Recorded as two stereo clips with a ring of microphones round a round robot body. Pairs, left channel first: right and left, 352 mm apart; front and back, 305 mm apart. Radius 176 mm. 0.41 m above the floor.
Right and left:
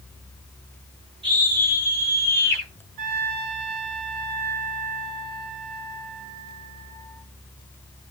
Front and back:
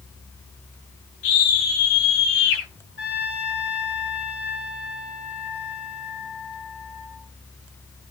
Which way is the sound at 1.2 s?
15° left.